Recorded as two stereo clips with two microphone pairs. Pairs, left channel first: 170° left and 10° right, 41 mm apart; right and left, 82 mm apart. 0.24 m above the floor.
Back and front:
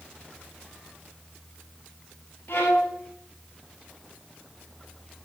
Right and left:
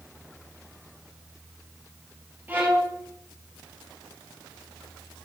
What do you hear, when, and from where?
2.5 s a violin: 160° left, 4 m